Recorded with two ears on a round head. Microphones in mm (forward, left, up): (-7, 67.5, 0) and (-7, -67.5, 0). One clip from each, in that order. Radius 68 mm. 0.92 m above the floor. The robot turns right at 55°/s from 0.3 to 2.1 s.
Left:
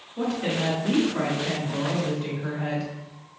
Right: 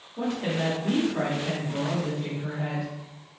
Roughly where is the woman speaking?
Ahead left.